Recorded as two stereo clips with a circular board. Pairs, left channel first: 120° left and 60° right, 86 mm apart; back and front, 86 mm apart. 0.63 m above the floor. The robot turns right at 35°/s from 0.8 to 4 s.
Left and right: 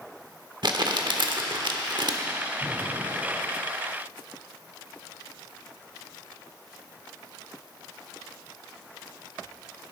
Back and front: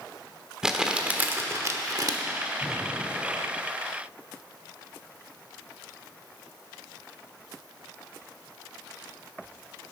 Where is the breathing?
100° right, 2.5 m; by 3.4 s 70° right, 2.5 m.